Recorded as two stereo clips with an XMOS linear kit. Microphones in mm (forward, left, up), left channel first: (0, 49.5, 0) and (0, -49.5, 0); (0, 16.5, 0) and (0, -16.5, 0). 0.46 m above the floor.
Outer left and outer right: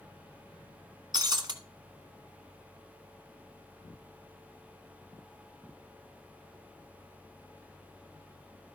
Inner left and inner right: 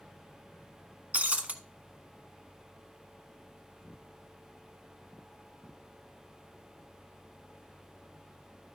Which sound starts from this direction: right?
Breaking glass, at 1.1 s.